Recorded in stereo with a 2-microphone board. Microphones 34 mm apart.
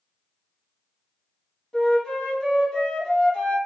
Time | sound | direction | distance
1.7 | a flute | 15° left (ahead or behind) | 2.5 m